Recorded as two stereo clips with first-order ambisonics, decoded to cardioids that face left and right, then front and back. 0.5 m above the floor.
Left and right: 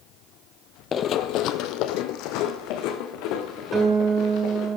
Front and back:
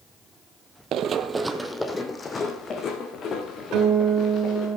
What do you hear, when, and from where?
0.9 s running footsteps: 145° left, 0.7 m; by 4.7 s 55° left, 3.5 m
3.7 s a guitar: 160° right, 1.8 m